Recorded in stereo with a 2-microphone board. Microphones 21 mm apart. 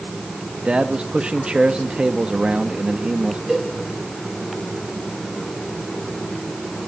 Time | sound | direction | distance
0.7 | a man speaking | 60° right (ahead or behind) | 1.6 m
3.5 | a cowbell | 25° right (ahead or behind) | 6.5 m